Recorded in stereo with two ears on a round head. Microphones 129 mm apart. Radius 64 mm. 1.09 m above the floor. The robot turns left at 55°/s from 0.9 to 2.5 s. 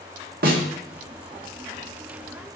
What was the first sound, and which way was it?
A snare drum, 70° right (ahead or behind).